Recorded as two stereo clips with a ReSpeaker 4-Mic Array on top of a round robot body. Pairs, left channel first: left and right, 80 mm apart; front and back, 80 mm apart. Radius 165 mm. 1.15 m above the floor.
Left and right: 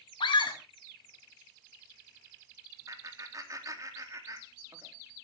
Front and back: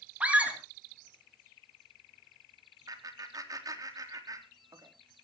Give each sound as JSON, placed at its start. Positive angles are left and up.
{"t": 0.2, "sound": "a scream", "azimuth_deg": 105, "distance_m": 3.0}
{"t": 2.9, "sound": "laughter", "azimuth_deg": -140, "distance_m": 3.0}